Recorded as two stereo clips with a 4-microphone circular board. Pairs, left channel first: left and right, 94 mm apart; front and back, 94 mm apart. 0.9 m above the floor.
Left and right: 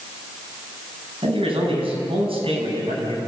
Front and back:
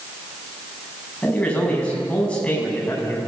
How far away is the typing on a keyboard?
I don't hear typing on a keyboard.